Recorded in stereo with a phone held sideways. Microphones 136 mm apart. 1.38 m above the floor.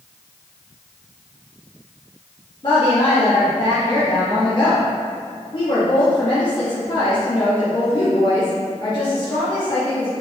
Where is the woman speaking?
40° left (ahead or behind), 2.5 m.